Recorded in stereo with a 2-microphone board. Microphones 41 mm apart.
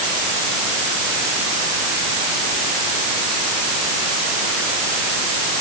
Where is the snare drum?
I don't hear a snare drum.